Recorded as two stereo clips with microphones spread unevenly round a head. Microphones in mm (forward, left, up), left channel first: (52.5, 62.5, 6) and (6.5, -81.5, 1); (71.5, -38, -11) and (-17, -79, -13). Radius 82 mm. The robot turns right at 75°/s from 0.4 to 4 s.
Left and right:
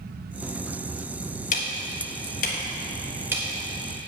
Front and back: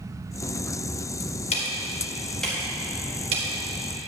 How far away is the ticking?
About 1.3 m.